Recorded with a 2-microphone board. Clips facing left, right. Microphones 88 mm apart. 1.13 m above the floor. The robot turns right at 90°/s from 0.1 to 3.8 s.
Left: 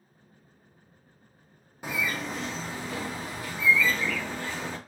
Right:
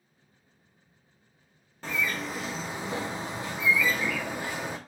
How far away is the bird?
About 0.6 m.